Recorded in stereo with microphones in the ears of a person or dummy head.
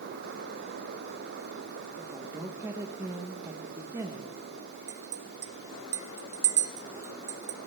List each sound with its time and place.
2.0 s a woman speaking: 15° right (ahead or behind), 1.4 m
4.9 s a clink: 15° right (ahead or behind), 0.8 m